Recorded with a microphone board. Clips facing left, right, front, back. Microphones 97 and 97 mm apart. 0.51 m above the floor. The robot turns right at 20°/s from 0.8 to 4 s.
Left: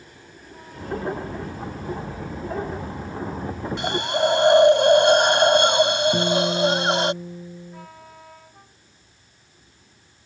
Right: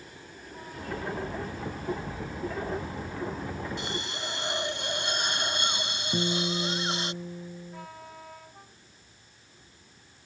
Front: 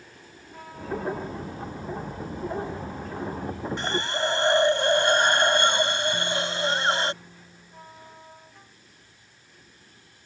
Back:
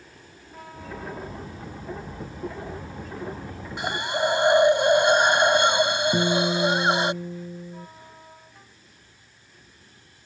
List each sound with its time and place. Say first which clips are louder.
3.8 s a hiss: left 13 dB, back 4 dB; 100° left; by 7.1 s 105° left
6.1 s a guitar: left 9 dB, back 6 dB; 170° left